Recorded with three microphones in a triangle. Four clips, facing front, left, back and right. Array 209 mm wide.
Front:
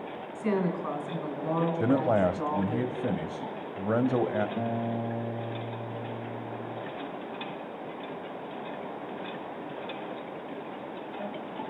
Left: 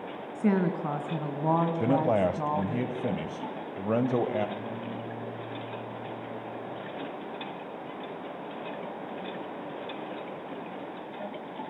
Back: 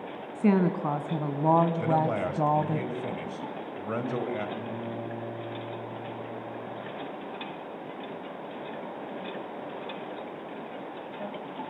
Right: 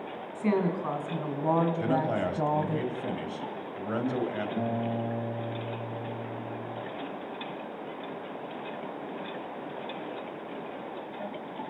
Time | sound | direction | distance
0.3 | a woman speaking | 160° left | 3.5 m
1.8 | a man speaking | 45° left | 2 m
4.6 | a guitar | 50° right | 2.5 m